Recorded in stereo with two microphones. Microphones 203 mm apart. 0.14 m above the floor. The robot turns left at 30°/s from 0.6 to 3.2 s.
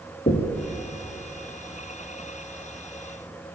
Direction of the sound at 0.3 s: 45° left (ahead or behind).